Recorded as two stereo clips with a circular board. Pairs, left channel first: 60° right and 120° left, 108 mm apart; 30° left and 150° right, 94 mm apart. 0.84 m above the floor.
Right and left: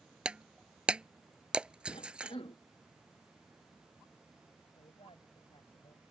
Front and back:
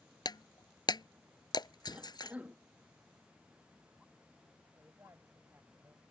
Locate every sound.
0.2 s breaking glass: 40° left
1.9 s a cough: 80° right
4.8 s a woman speaking: 90° right